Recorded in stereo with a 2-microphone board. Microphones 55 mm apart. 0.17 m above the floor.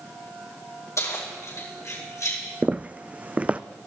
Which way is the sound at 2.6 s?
25° right (ahead or behind).